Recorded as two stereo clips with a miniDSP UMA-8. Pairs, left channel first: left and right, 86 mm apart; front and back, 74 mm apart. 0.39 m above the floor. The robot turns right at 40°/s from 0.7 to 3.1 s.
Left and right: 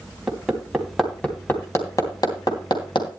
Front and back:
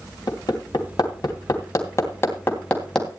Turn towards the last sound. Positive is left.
turn(degrees=90)